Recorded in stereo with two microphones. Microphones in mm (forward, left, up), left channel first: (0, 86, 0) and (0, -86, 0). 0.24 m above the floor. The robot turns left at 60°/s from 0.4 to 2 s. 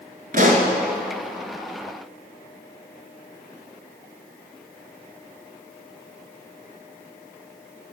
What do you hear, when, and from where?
0.3 s a pop: 55° right (ahead or behind), 1.3 m; by 0.7 s 40° right (ahead or behind), 1.3 m